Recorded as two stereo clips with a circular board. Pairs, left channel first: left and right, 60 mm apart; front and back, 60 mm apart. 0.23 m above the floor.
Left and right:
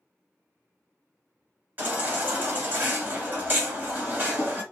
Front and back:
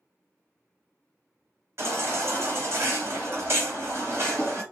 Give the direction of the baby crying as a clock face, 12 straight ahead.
5 o'clock.